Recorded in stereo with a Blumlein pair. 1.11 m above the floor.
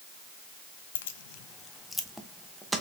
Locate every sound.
0.9 s keys jangling: 65° left, 0.5 m; by 2.8 s 15° right, 0.9 m